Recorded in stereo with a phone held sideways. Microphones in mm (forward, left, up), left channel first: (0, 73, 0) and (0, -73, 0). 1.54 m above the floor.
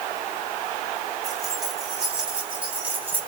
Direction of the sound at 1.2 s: Centre (ahead or behind).